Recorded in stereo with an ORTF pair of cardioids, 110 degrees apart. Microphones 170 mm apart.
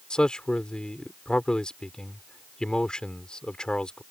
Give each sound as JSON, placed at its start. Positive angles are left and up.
{"t": 0.1, "sound": "a man speaking", "azimuth_deg": 5}